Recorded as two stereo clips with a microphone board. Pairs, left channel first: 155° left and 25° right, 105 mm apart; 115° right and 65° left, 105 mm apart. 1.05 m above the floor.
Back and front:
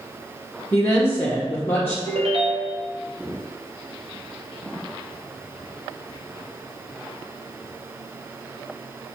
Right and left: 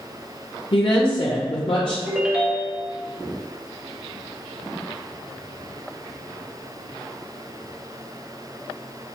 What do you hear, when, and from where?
0.7 s a woman speaking: 135° right, 0.7 m
2.1 s a ringtone: 15° right, 0.7 m